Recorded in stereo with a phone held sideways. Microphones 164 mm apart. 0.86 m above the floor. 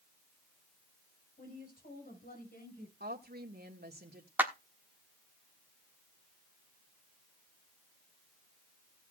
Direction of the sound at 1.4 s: 60° left (ahead or behind).